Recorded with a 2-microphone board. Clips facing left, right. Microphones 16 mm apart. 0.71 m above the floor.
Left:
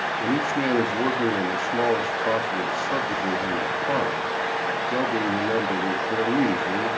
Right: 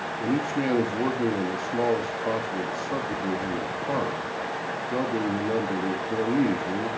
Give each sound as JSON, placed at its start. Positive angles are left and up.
{"t": 0.2, "sound": "a man speaking", "side_deg": 20, "distance_m": 1.3}